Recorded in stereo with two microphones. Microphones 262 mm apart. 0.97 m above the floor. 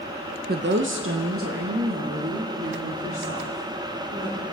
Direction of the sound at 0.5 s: 35° right (ahead or behind).